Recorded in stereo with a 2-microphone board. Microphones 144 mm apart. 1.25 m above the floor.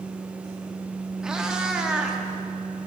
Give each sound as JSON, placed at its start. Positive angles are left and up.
{"t": 1.2, "sound": "a cat meowing", "side_deg": -5, "distance_m": 0.7}